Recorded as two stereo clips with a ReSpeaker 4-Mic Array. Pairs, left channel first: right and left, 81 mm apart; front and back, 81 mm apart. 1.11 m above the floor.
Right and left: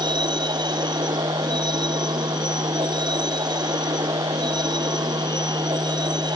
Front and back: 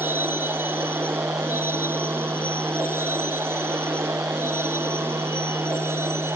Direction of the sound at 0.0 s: 115° left.